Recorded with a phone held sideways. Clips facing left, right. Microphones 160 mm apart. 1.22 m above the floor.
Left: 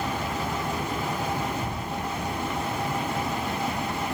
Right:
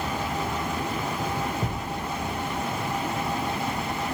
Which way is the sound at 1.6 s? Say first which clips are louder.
Right 1 dB; 80° right.